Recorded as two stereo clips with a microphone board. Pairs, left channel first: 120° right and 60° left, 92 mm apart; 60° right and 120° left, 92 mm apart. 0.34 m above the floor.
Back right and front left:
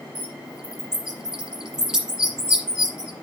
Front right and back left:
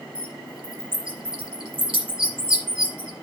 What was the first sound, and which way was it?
A bird, 140° left.